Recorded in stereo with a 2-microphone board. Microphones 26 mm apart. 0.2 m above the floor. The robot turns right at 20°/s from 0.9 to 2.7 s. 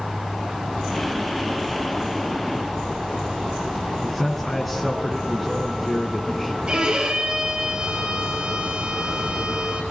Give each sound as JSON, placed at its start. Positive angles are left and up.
{"t": 4.0, "sound": "a man speaking", "side_deg": 5, "distance_m": 1.8}
{"t": 6.7, "sound": "a violin", "side_deg": -40, "distance_m": 3.0}